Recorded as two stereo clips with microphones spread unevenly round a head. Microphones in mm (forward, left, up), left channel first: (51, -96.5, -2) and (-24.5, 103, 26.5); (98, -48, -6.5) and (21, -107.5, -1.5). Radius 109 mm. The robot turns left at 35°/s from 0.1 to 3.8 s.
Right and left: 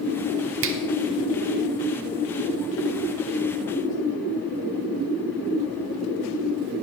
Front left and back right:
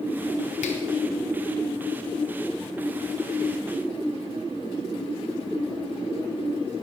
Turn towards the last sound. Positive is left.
turn(degrees=-30)